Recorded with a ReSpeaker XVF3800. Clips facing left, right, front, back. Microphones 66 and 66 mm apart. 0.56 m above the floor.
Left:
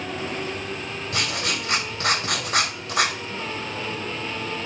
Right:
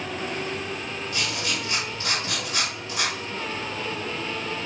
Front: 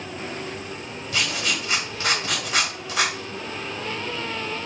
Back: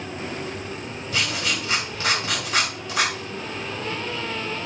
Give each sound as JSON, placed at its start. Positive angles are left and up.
{"t": 1.1, "sound": "writing", "azimuth_deg": 85, "distance_m": 1.8}